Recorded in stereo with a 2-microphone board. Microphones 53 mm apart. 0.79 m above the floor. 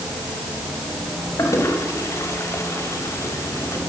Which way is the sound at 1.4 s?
65° left (ahead or behind).